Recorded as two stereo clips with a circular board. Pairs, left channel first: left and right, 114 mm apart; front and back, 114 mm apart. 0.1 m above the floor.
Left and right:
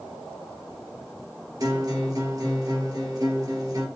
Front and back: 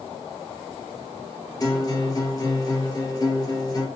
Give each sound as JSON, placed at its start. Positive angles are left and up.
{"t": 1.6, "sound": "a guitar", "azimuth_deg": -45, "distance_m": 2.5}